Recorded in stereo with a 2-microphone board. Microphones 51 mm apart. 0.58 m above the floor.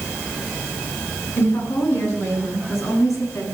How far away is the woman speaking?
About 7 m.